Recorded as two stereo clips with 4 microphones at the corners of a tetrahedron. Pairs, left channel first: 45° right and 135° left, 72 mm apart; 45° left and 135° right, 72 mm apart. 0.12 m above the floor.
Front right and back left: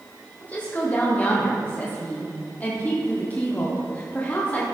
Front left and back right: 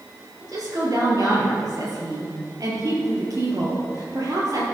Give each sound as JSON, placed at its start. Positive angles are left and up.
{"t": 0.4, "sound": "a woman speaking", "azimuth_deg": -110, "distance_m": 3.0}